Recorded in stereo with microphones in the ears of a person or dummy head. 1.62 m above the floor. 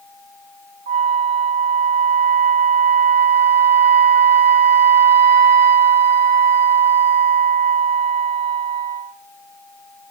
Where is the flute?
55° right (ahead or behind), 1.7 m.